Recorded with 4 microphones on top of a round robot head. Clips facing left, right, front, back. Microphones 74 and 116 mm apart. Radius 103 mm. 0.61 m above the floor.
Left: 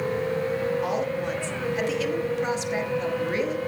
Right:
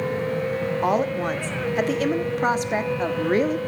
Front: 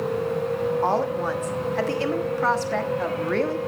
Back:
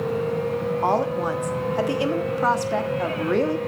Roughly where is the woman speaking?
Right.